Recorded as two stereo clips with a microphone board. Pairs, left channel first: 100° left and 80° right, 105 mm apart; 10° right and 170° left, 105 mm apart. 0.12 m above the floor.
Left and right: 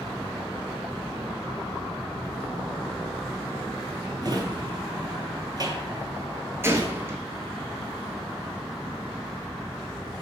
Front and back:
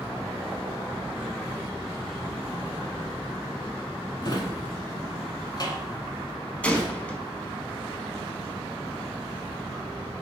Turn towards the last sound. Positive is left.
turn(degrees=-75)